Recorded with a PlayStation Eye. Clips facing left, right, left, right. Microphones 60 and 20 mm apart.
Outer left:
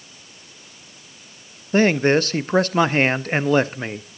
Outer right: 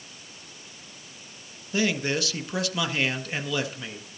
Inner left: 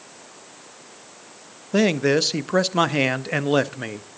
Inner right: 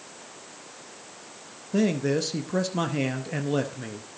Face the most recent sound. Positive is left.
turn(degrees=45)  # may be behind; listen again after turning